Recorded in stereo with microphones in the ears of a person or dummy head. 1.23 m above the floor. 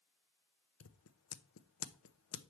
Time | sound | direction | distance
0.8 | scissors | 65° left (ahead or behind) | 0.6 m